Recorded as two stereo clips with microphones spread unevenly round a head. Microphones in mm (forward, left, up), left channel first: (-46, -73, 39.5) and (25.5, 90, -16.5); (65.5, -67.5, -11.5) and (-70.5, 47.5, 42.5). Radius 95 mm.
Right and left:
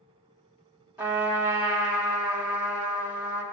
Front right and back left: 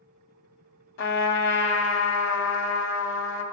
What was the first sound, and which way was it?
A trumpet, 15° right.